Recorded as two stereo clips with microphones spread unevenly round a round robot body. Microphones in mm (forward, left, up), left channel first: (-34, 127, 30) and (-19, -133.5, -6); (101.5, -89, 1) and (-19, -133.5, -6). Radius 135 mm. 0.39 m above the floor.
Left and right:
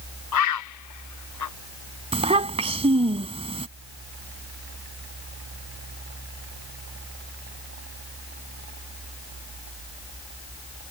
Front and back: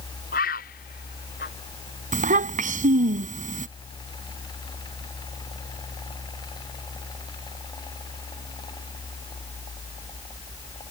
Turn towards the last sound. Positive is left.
turn(degrees=-155)